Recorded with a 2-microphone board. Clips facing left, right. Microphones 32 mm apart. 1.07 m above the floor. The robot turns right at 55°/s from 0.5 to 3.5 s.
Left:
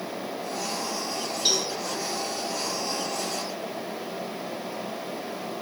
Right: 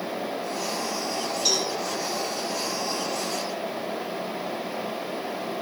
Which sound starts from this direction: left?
A cowbell, at 1.4 s.